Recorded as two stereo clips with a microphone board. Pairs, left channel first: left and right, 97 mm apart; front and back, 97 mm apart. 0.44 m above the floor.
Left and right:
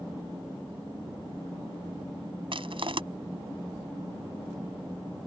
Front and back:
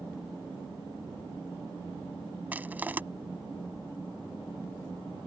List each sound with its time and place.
2.5 s crushing: 110° right